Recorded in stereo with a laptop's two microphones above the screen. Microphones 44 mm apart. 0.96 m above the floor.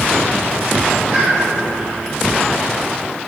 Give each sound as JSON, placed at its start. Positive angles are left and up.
{"t": 1.1, "sound": "a pop", "side_deg": -30, "distance_m": 0.7}